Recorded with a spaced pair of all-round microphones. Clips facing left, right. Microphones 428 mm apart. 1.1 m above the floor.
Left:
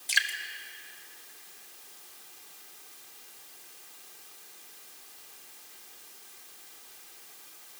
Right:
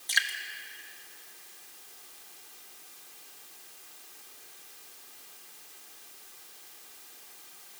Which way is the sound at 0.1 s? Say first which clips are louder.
Left 1 dB; 45° left (ahead or behind).